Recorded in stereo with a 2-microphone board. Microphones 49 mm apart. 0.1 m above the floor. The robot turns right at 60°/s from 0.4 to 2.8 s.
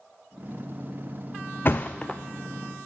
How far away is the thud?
About 0.6 m.